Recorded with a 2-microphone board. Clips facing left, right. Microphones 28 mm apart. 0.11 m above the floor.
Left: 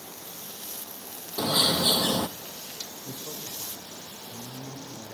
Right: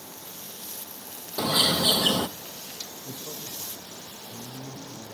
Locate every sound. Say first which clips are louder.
1.4 s a bird: right 1 dB; 45° right (ahead or behind), 0.7 m
3.0 s a man speaking: even; 75° left (ahead or behind), 8.5 m